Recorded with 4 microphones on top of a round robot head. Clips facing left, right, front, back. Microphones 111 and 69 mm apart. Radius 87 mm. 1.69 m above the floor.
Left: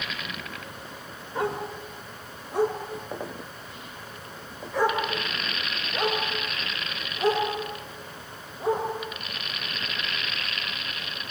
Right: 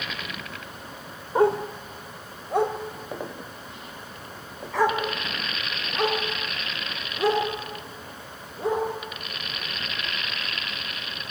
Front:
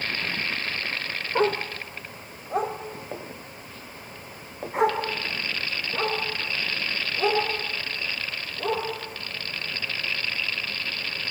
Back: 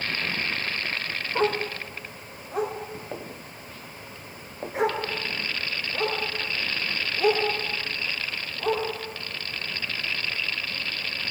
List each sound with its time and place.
1.4 s a dog barking: 65° right, 1.5 m